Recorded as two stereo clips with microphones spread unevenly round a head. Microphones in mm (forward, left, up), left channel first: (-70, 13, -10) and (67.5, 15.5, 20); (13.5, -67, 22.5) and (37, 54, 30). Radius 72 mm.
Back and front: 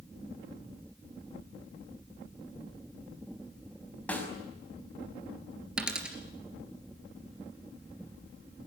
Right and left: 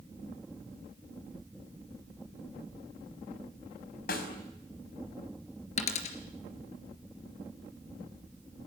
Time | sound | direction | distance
4.1 | a snare drum | 95° right | 5.5 m
5.8 | a dropped coin | 75° right | 3 m